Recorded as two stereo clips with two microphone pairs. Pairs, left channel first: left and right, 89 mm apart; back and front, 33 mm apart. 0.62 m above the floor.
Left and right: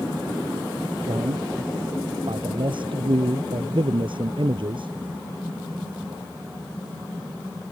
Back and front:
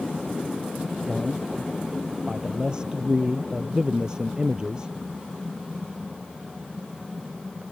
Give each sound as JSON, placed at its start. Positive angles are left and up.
{"t": 1.1, "sound": "a man speaking", "azimuth_deg": -65}